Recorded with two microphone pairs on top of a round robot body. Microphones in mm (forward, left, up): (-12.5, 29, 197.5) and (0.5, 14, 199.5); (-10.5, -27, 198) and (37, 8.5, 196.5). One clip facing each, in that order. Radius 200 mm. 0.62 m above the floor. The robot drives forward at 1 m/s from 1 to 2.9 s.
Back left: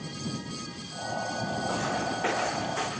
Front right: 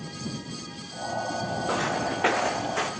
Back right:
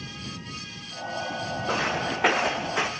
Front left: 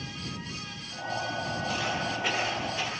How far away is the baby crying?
I don't hear a baby crying.